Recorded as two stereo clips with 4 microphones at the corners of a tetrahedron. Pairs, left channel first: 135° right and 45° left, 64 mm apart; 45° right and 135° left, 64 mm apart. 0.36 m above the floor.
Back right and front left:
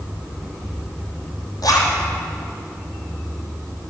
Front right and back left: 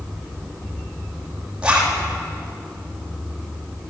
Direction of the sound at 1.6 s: 150° right.